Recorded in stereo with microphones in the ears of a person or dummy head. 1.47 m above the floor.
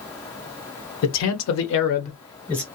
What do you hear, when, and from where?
1.0 s a man speaking: 75° left (ahead or behind), 1.0 m; by 2.6 s 10° left (ahead or behind), 0.8 m